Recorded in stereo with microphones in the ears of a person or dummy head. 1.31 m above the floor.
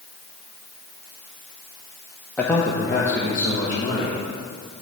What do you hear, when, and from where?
2.4 s a man speaking: 5° left (ahead or behind), 0.5 m; by 4.2 s 15° left (ahead or behind), 1.5 m